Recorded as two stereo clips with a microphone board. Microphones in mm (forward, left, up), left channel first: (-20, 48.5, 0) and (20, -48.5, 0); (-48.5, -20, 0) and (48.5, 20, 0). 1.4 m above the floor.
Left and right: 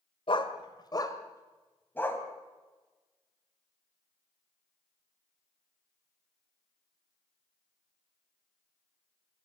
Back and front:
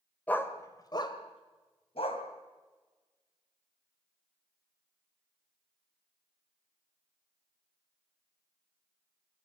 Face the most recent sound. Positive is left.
turn(degrees=-175)